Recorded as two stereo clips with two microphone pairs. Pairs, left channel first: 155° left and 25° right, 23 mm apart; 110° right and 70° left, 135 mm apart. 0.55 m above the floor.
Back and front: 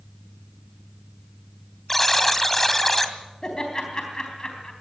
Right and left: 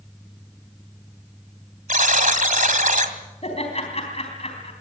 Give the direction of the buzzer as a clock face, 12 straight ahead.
9 o'clock.